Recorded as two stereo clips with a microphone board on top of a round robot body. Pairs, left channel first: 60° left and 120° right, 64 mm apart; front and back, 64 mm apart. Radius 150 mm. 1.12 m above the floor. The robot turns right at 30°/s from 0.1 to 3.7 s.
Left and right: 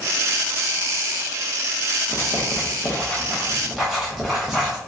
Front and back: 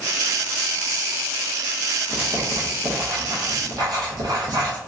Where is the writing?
105° left, 0.8 m; by 4.8 s 155° left, 0.8 m.